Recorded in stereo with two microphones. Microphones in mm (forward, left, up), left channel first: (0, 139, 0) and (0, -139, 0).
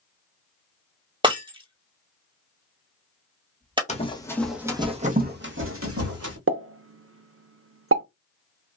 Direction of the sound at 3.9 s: 25° left (ahead or behind).